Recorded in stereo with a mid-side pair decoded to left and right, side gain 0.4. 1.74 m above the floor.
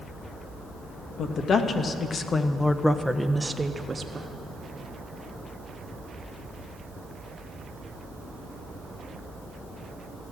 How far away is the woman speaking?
About 2.0 m.